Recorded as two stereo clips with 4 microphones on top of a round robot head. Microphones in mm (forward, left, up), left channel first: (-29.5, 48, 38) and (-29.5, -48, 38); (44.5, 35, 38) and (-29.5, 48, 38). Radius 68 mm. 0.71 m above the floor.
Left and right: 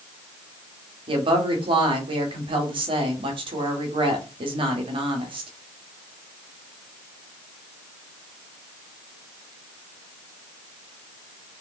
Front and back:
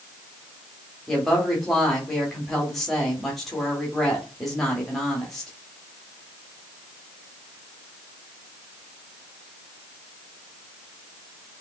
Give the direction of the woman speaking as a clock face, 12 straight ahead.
3 o'clock.